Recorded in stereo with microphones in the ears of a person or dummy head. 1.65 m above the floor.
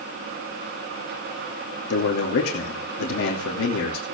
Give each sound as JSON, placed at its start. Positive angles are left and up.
{"t": 1.9, "sound": "a man speaking", "side_deg": 60, "distance_m": 3.0}